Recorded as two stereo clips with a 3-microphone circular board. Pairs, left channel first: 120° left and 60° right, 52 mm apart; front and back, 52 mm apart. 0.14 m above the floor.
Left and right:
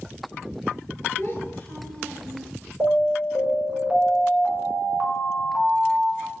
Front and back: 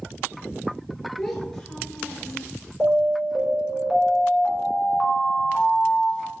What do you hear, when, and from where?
1.2 s a child speaking: 90° left, 1.2 m; by 2.5 s 45° left, 0.9 m
2.8 s an alarm: 115° right, 1.3 m